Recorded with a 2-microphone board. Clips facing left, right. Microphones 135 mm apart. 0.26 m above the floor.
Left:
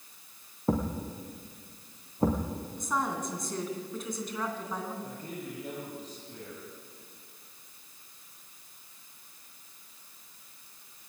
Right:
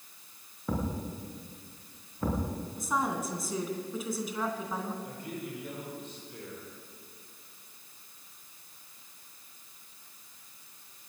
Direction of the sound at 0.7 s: 40° left (ahead or behind).